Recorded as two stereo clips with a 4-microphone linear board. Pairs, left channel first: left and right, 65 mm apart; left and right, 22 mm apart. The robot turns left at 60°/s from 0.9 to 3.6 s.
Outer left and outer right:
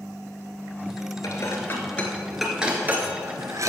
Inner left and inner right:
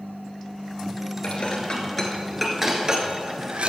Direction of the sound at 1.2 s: 60° left (ahead or behind).